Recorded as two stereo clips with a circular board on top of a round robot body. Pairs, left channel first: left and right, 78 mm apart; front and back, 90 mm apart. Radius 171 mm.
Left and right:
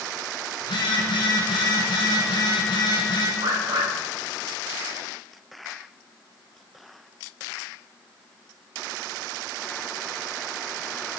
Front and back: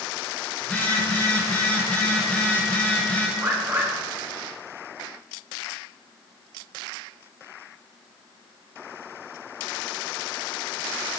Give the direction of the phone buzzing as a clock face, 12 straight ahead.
9 o'clock.